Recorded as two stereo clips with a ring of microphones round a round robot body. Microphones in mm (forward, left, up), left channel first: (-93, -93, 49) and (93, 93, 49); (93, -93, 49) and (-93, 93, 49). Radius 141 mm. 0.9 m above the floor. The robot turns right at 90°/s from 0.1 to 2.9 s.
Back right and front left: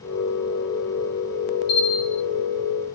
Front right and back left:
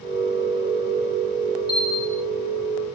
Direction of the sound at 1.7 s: 140° right.